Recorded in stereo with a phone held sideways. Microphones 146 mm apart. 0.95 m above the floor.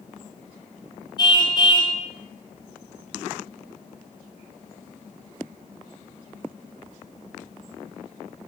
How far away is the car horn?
About 3.5 m.